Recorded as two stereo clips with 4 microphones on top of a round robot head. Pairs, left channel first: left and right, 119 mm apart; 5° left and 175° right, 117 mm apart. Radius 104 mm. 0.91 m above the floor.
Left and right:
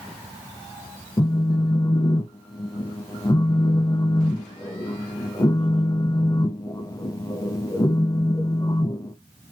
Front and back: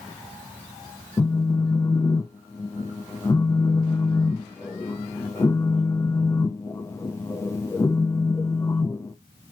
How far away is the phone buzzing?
About 0.5 m.